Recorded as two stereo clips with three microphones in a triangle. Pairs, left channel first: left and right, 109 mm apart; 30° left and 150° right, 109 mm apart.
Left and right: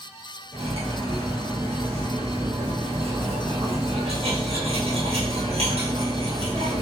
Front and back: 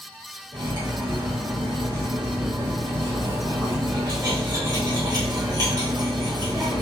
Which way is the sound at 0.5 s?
100° right.